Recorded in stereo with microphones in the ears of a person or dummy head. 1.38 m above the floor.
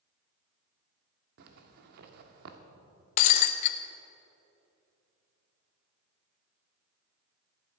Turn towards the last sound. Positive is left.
turn(degrees=45)  # may be behind; listen again after turning